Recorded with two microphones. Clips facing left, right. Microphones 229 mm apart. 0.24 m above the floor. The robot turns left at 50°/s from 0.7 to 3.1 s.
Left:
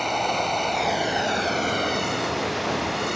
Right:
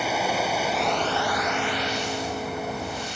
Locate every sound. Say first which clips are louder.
0.0 s running water: right 1 dB; 175° right; by 3.2 s 65° left